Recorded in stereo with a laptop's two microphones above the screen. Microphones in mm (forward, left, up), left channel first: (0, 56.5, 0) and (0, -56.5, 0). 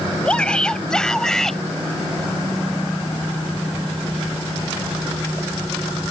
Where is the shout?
10° left (ahead or behind); by 1.6 s 5° left (ahead or behind).